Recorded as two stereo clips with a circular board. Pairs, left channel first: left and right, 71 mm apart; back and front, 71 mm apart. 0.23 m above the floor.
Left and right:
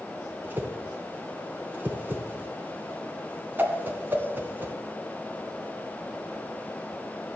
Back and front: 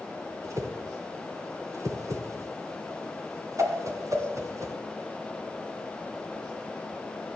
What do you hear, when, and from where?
0.4 s a whoosh: 30° right, 2.5 m